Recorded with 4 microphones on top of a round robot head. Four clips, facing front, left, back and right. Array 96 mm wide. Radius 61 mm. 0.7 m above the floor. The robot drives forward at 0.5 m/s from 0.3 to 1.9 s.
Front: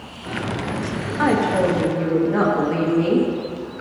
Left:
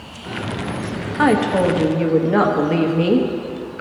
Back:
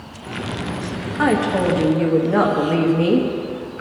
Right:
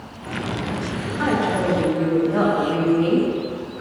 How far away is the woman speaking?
About 1.3 m.